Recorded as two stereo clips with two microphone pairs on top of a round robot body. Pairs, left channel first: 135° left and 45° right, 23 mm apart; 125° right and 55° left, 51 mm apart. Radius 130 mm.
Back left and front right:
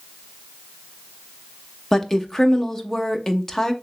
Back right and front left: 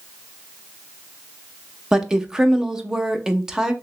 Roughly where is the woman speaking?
Left.